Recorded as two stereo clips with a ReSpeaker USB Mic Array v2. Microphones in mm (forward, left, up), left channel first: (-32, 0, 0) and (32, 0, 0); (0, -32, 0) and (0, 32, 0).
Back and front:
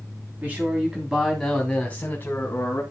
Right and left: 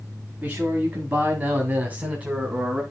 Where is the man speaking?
45° left, 2 m; by 2.8 s 160° left, 2.5 m.